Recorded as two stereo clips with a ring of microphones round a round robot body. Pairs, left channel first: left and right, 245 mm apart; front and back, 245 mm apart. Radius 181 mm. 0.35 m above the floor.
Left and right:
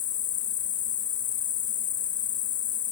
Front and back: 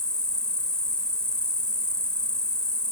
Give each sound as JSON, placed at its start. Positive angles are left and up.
{"t": 0.0, "sound": "an insect", "azimuth_deg": 85}